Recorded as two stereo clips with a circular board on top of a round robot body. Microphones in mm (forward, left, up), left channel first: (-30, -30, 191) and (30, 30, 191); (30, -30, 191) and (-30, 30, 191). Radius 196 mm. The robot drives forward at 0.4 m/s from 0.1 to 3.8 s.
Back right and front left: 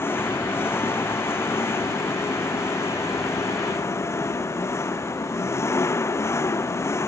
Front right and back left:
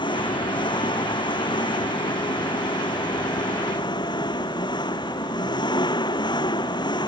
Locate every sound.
0.0 s an engine running: 70° right; by 7.1 s 75° right